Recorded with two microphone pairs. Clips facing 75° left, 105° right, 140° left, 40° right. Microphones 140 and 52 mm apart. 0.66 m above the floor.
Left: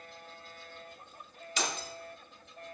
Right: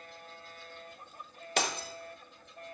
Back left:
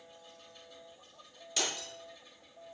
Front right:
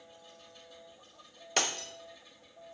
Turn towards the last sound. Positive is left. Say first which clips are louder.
# right 3 dB, front right 4 dB
turn(degrees=-75)